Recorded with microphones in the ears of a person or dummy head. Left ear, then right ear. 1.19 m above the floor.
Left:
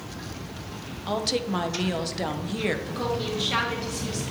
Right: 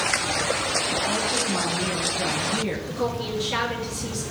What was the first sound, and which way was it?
A woman speaking, 60° left (ahead or behind).